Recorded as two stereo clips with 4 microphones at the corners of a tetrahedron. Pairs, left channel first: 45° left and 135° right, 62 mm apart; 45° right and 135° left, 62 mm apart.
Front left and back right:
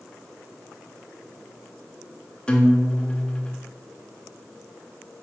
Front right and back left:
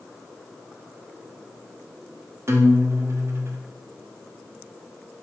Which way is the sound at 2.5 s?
115° left.